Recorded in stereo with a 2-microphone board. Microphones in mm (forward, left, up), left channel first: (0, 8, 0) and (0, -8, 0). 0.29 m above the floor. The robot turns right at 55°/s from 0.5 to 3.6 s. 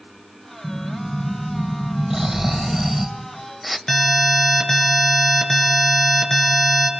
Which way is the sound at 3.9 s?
25° left (ahead or behind).